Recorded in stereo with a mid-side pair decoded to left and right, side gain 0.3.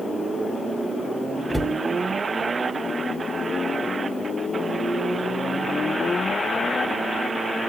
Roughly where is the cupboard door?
Ahead.